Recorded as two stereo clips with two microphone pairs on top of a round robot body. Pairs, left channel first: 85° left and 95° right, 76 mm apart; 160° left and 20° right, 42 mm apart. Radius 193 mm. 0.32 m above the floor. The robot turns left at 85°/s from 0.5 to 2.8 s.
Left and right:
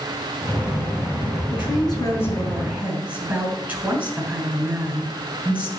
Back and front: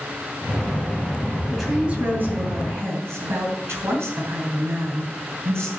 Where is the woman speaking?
80° left, 6 m; by 5.7 s 30° right, 6 m.